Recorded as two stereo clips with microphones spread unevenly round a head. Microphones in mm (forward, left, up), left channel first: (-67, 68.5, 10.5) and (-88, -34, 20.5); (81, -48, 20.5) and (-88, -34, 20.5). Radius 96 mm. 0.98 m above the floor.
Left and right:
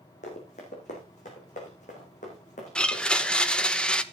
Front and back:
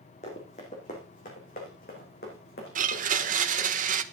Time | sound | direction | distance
0.2 | running footsteps | 55° left | 3.5 m
2.8 | a blender | 150° left | 1.0 m